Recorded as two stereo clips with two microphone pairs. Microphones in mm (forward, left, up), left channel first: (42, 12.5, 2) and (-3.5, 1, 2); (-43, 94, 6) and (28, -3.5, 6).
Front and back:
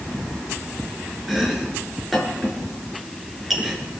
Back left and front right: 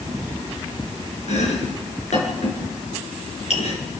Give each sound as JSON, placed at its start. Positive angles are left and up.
{"t": 1.3, "sound": "chopping", "azimuth_deg": 105, "distance_m": 5.0}